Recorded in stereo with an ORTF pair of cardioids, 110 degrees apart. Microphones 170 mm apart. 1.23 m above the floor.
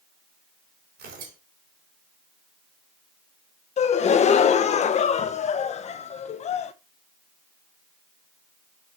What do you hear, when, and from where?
1.0 s tearing paper: 60° right, 4 m
3.8 s a gasp: 40° left, 0.8 m